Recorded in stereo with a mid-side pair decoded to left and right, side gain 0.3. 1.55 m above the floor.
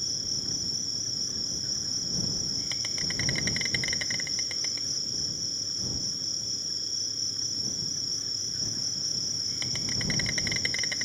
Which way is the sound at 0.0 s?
Straight ahead.